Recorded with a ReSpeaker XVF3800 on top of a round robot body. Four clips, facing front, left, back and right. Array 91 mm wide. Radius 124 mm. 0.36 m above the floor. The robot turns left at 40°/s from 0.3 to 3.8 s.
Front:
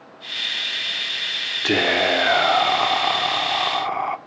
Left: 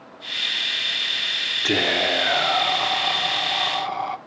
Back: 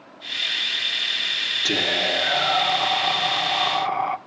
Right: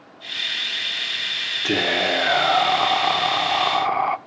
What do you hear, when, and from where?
1.6 s whispering: 5° left, 1.3 m; by 4.2 s 80° right, 1.3 m